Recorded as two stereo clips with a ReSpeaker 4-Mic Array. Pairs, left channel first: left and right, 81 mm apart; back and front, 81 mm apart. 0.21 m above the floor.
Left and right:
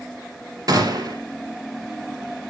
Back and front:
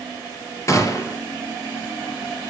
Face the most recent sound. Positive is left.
turn(degrees=-130)